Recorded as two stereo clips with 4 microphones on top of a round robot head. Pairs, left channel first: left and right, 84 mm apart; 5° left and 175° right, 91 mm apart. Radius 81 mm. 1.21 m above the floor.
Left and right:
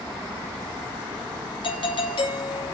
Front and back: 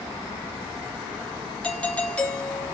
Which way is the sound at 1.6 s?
80° left.